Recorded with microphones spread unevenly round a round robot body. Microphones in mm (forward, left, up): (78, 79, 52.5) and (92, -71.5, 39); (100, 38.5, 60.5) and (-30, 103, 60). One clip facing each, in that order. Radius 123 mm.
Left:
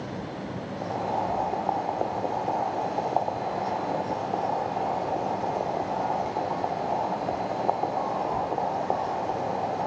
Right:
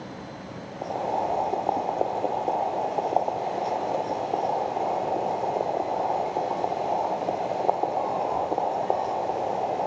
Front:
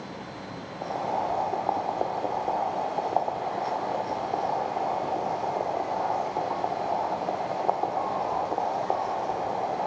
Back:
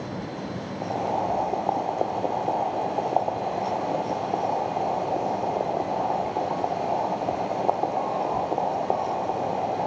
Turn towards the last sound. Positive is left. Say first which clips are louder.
# right 2 dB, back 2 dB
turn(degrees=-140)